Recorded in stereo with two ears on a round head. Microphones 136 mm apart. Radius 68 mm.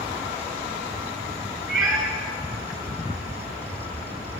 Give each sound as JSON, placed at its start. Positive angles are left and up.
{"t": 1.7, "sound": "a cat meowing", "side_deg": -5, "distance_m": 7.0}